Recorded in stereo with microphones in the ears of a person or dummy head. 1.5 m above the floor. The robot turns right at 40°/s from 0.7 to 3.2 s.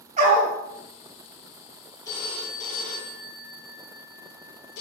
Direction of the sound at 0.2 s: 45° right (ahead or behind).